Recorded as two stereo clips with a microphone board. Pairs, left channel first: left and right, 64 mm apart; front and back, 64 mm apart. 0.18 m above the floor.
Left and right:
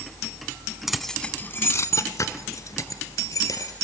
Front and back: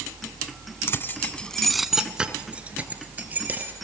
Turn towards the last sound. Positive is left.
turn(degrees=120)